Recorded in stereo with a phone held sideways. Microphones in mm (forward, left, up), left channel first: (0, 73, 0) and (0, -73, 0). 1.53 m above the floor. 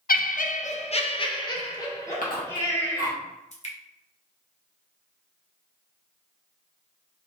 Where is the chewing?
70° left (ahead or behind), 1.1 m.